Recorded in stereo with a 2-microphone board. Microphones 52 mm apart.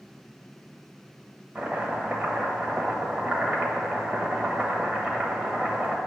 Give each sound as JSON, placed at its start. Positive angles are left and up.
{"t": 1.6, "sound": "chopping", "side_deg": -25, "distance_m": 1.1}